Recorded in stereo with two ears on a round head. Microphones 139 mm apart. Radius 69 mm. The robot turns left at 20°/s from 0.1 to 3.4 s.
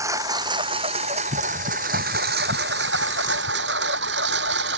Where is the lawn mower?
20° right (ahead or behind); by 4.8 s 85° right.